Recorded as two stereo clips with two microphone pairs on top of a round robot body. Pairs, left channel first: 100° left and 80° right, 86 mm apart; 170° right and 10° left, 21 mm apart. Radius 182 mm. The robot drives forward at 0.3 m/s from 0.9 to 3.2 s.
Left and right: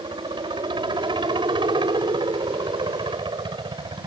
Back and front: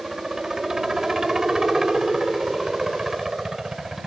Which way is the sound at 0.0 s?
55° right.